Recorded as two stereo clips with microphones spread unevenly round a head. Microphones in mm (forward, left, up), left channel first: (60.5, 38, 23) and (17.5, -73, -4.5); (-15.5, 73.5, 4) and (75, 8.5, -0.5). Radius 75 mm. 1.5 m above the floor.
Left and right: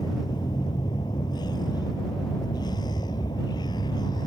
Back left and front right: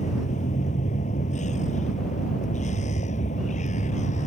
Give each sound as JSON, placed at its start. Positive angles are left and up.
{"t": 0.0, "sound": "a vehicle", "azimuth_deg": 135}